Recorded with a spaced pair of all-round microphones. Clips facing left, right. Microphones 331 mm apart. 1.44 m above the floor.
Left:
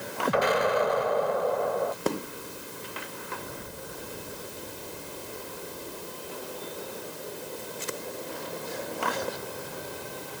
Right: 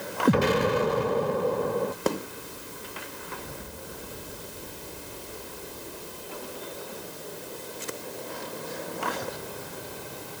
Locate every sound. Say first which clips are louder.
0.3 s an explosion: right 3 dB; 35° right (ahead or behind)